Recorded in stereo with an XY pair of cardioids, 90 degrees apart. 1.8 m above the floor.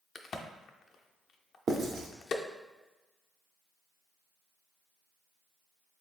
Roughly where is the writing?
Ahead right.